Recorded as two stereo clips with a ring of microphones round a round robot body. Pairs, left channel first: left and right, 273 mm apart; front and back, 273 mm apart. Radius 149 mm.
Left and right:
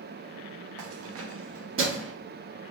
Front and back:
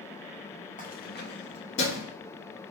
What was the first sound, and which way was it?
Keys jangling, 60° right.